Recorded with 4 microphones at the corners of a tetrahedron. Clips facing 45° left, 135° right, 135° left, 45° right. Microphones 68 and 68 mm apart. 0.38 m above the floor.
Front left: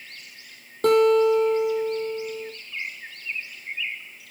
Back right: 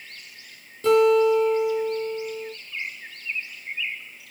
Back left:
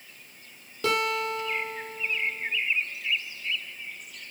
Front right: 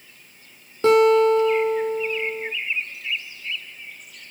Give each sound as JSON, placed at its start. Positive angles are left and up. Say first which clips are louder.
{"t": 0.8, "sound": "a guitar", "louder": "even, front right 13 dB", "azimuth_deg": 10, "distance_m": 4.5}